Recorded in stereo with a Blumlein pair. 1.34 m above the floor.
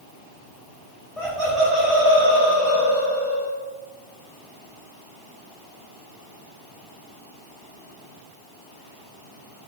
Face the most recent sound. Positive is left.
turn(degrees=-30)